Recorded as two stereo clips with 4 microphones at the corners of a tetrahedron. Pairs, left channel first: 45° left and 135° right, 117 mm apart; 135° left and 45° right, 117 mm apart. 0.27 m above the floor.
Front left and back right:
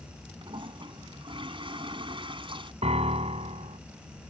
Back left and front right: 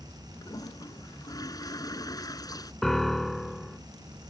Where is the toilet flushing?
170° right.